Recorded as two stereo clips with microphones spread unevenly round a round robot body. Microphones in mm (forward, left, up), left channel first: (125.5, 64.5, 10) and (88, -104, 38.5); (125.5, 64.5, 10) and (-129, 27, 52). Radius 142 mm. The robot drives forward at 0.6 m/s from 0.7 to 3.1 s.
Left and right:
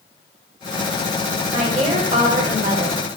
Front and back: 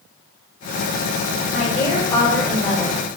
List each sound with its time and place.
1.5 s a woman speaking: 50° right, 2 m; by 3.0 s 75° right, 1.8 m